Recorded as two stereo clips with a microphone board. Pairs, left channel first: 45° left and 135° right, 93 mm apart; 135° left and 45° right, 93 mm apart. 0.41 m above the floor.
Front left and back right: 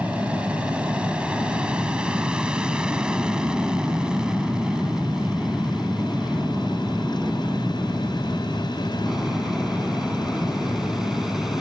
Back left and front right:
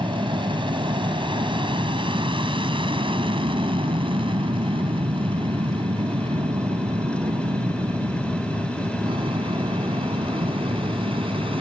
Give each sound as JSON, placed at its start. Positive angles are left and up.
{"t": 0.0, "sound": "an aircraft", "azimuth_deg": -60}